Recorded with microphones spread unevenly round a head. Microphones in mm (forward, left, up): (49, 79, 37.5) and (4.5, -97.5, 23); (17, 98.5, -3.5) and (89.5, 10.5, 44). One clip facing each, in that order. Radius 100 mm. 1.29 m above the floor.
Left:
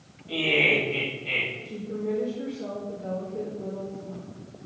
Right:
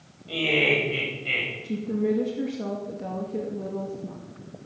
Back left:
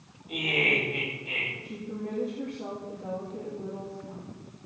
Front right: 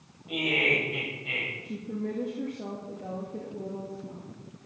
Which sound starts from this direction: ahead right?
Laughter, at 0.3 s.